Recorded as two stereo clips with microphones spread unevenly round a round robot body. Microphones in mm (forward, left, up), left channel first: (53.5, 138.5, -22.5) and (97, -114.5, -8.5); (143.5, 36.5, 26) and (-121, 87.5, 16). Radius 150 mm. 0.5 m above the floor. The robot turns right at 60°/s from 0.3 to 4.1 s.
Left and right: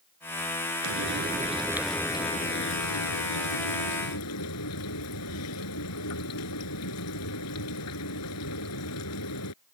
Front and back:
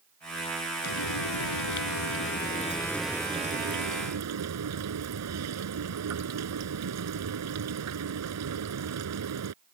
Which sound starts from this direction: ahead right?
Frying, at 0.8 s.